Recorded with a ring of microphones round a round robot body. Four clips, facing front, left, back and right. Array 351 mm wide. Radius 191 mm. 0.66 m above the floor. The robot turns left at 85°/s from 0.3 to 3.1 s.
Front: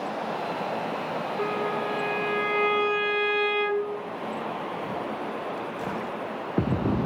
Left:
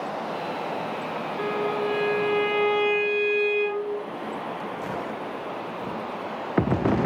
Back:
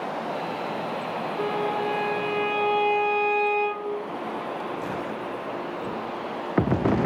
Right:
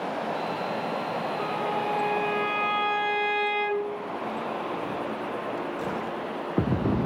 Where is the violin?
145° left, 10 m; by 4.0 s straight ahead, 10 m.